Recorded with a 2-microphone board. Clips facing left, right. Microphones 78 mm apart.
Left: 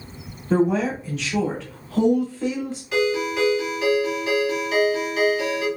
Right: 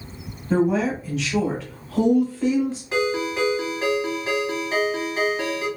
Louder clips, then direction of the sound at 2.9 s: Left 3 dB; 30° right (ahead or behind).